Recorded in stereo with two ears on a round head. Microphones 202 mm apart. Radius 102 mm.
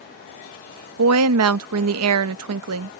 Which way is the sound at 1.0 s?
75° right (ahead or behind).